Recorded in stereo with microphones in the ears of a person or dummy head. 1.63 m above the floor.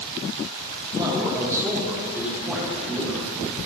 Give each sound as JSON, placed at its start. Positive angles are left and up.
{"t": 0.9, "sound": "a man speaking", "side_deg": -20, "distance_m": 3.5}